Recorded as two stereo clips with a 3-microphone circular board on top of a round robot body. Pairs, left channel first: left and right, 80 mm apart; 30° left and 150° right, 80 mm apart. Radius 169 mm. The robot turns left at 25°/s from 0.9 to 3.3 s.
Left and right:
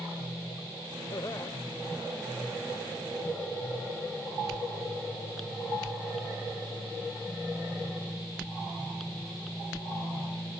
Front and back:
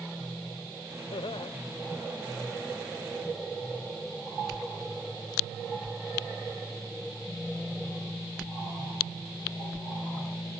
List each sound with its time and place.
1.1 s laughter: 45° left; by 1.5 s 35° left